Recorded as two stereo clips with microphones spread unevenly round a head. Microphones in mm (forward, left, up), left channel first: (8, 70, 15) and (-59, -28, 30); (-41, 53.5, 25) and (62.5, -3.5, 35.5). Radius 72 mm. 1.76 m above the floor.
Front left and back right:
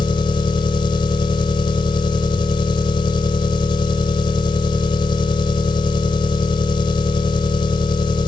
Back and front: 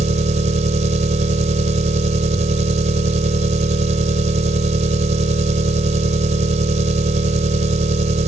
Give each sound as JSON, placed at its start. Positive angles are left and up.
{"t": 0.0, "sound": "an engine running", "azimuth_deg": -5}